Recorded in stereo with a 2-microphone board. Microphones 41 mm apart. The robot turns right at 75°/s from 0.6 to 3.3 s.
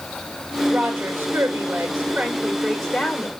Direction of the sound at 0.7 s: 155° right.